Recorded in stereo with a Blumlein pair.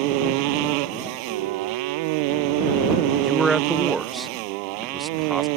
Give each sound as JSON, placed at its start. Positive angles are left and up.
{"t": 0.0, "sound": "a motorcycle", "azimuth_deg": -45}
{"t": 1.2, "sound": "a flute", "azimuth_deg": -55}
{"t": 3.2, "sound": "a man speaking", "azimuth_deg": -10}